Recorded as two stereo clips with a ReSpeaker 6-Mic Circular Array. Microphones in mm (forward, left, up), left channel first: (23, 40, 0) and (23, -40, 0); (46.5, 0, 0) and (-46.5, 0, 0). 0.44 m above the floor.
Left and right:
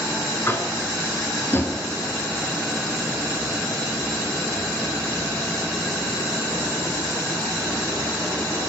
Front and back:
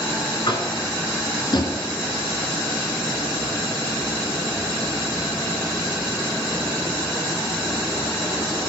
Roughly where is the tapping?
Ahead left.